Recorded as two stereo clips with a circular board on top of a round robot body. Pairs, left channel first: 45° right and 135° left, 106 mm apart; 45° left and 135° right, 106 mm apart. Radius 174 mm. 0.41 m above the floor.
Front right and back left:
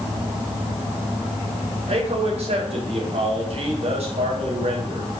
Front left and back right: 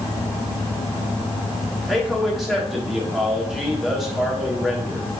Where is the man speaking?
135° left, 3.5 m.